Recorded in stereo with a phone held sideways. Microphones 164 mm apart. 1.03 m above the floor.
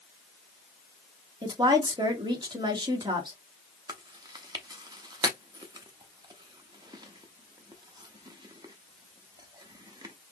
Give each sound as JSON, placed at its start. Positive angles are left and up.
{"t": 1.4, "sound": "a woman speaking", "side_deg": -25, "distance_m": 1.3}
{"t": 3.9, "sound": "chewing", "side_deg": -25, "distance_m": 0.6}